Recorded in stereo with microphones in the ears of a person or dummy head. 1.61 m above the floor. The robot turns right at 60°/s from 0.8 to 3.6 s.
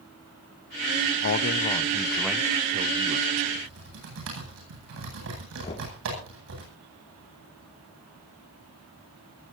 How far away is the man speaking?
About 0.8 m.